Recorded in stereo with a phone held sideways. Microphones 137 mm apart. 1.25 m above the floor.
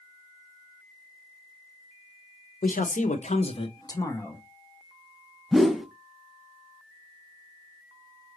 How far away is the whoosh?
About 0.5 m.